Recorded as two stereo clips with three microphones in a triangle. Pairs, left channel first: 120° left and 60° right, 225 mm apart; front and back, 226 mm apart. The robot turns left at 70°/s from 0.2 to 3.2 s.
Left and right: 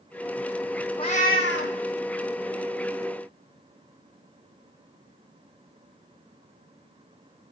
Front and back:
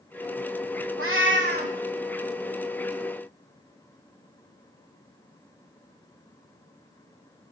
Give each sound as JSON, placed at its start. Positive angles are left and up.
{"t": 1.0, "sound": "a cat meowing", "azimuth_deg": -175, "distance_m": 1.0}